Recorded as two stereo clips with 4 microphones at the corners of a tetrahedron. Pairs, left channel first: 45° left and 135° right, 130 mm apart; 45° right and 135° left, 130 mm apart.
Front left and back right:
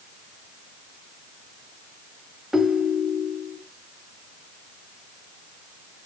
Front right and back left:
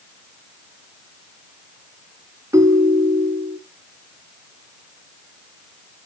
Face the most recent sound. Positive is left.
turn(degrees=140)